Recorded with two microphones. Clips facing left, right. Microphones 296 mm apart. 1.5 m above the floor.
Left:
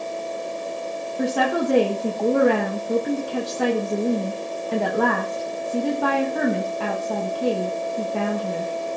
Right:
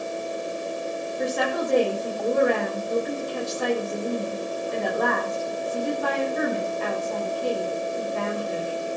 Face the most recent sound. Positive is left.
turn(degrees=75)  # may be behind; listen again after turning